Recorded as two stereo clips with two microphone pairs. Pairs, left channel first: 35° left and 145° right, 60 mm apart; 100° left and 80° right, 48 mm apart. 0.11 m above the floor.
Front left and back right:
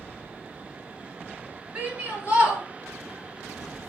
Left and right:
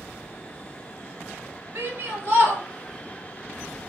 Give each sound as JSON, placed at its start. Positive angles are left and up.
{"t": 1.8, "sound": "a shout", "azimuth_deg": -80, "distance_m": 2.0}